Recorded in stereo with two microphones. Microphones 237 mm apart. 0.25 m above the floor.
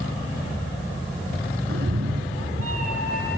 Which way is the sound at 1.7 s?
65° right (ahead or behind).